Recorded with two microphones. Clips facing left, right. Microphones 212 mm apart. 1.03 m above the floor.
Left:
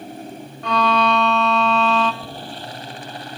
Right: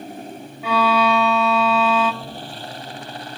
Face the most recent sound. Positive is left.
turn(degrees=5)  # may be behind; listen again after turning